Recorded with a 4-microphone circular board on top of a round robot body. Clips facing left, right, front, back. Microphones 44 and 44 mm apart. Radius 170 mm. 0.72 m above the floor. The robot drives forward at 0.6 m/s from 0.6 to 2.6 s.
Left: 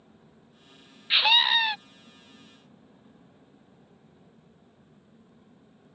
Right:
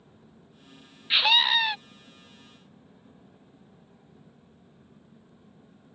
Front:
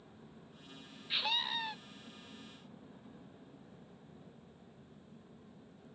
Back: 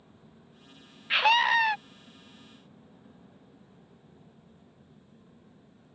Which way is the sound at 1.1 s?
175° left.